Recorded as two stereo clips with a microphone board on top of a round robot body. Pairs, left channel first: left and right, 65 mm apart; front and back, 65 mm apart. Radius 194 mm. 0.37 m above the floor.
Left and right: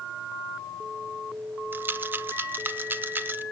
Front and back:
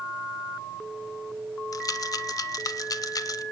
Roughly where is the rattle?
Ahead right.